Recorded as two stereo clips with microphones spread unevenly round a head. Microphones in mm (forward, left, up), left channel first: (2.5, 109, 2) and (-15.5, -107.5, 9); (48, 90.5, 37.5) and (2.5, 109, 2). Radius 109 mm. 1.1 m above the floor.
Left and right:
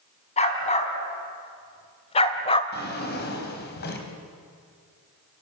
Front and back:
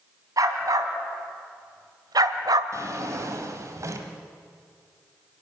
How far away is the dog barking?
About 3 m.